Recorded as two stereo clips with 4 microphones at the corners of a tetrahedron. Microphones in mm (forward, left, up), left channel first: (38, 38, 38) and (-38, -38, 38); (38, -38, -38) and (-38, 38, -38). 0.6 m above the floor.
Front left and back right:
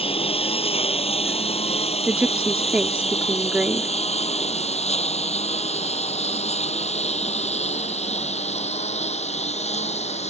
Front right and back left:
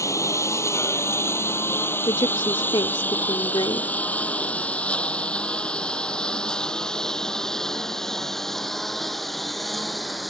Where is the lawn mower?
15° left; by 10.3 s 45° left.